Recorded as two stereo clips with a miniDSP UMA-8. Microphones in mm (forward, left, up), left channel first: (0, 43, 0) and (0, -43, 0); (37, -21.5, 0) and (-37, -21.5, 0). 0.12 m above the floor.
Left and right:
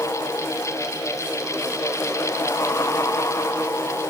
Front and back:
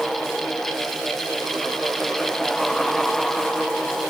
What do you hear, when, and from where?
Only background noise.